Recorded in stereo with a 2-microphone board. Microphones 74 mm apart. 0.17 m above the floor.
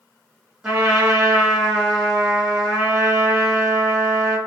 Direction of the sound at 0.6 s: 10° right (ahead or behind).